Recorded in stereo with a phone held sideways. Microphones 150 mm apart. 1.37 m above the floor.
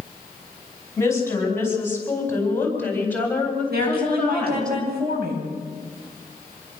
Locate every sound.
1.0 s a woman speaking: 20° left (ahead or behind), 10 m; by 4.7 s 5° left (ahead or behind), 5.5 m
3.7 s a woman speaking: 85° right, 9.5 m